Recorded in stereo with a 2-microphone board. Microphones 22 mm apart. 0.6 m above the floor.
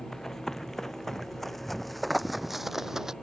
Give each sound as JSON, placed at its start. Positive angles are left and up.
{"t": 0.1, "sound": "running footsteps", "side_deg": 25}